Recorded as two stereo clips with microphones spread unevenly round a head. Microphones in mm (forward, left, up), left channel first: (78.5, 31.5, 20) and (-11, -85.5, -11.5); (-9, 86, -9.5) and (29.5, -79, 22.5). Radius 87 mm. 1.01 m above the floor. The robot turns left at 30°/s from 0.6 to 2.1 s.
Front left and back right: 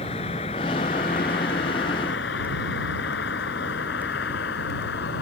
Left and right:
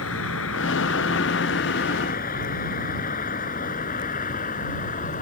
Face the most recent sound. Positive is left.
turn(degrees=60)